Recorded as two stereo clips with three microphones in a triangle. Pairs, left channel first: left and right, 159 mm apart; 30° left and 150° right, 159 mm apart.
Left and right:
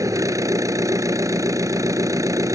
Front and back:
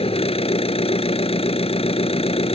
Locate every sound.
0.0 s an engine running: 20° right